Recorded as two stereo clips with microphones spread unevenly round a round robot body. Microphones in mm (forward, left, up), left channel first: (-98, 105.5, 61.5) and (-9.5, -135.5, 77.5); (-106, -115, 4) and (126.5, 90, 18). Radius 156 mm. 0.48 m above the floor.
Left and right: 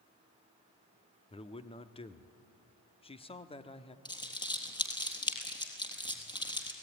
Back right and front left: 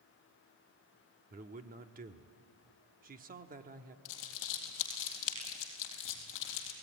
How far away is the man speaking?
About 1.1 m.